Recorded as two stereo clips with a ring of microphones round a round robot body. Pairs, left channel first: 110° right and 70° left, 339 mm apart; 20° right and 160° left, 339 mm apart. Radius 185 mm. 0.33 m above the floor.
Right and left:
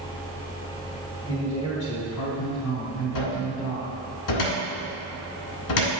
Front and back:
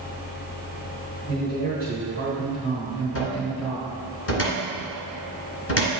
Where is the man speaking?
75° right, 1.9 m; by 4.0 s 95° right, 3 m.